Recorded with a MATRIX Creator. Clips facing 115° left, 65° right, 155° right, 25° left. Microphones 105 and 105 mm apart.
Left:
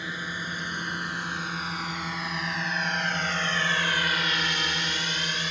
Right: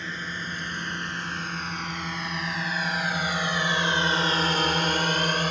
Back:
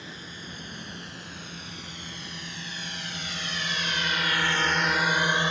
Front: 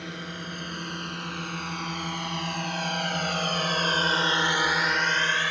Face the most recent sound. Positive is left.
turn(degrees=-95)